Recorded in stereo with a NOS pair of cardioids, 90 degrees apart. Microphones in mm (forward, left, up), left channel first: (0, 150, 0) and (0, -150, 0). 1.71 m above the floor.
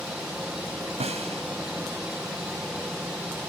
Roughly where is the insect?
Ahead.